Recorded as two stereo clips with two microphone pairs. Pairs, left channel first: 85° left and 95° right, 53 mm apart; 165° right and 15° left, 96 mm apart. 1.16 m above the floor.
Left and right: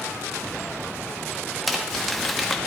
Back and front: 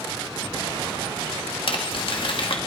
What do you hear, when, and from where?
1.7 s crumpling: 170° left, 1.9 m